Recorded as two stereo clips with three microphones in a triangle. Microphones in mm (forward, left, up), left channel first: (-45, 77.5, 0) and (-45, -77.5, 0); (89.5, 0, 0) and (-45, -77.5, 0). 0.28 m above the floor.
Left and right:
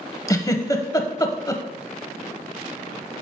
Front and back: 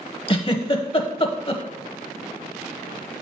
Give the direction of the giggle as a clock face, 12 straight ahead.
11 o'clock.